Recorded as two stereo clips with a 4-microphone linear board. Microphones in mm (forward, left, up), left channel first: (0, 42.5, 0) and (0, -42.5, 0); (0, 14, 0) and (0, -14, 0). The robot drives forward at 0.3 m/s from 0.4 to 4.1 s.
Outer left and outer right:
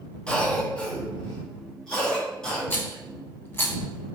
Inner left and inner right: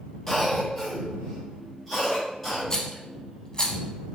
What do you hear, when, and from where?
0.3 s a cough: 10° left (ahead or behind), 0.9 m; by 2.6 s 5° left (ahead or behind), 1.5 m
2.7 s a rattle: 15° left (ahead or behind), 0.9 m; by 3.8 s 25° left (ahead or behind), 0.6 m